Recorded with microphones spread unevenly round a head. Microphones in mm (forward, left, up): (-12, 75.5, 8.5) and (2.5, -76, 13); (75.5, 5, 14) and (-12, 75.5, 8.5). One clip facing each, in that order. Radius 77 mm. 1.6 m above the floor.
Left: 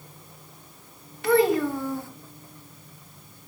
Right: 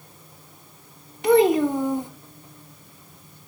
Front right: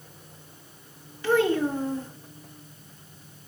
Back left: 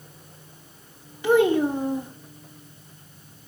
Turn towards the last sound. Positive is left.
turn(degrees=-145)